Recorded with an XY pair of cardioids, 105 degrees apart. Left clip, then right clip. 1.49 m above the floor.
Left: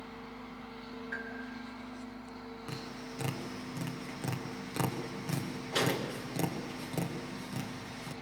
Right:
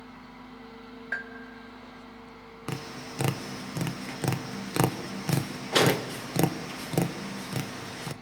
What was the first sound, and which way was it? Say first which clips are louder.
A bell: right 7 dB; 65° right.